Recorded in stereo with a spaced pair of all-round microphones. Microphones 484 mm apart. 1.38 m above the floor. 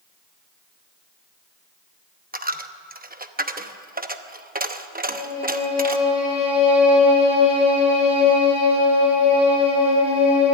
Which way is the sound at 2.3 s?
20° right (ahead or behind).